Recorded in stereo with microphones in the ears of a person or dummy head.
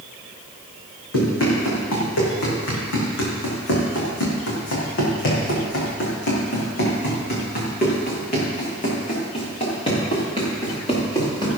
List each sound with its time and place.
1.1 s running footsteps: 70° left (ahead or behind), 5.5 m; by 11.5 s 25° left (ahead or behind), 6.5 m